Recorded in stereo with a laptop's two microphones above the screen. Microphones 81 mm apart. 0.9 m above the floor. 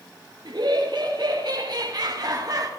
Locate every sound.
0.5 s laughter: 70° right (ahead or behind), 3 m; by 2.7 s 45° right (ahead or behind), 1.3 m